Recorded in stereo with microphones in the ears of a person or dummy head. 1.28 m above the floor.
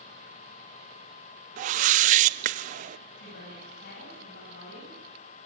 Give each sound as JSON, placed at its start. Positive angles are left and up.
{"t": 1.6, "sound": "a whoosh", "side_deg": -40, "distance_m": 0.7}
{"t": 3.2, "sound": "a woman speaking", "side_deg": 65, "distance_m": 9.5}